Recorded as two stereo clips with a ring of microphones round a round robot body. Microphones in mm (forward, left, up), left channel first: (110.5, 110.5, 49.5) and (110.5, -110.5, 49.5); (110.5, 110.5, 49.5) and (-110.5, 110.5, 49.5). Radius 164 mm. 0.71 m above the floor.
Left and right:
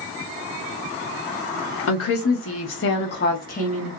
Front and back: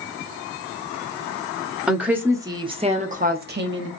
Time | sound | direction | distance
1.9 | a woman speaking | 95° left | 1.6 m